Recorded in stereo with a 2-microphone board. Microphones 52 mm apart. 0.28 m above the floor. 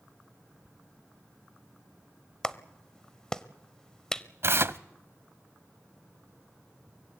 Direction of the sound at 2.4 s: 10° left (ahead or behind).